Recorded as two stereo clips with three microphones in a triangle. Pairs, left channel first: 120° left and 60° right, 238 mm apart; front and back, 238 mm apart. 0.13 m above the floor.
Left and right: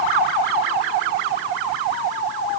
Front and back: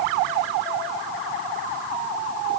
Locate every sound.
Only background noise.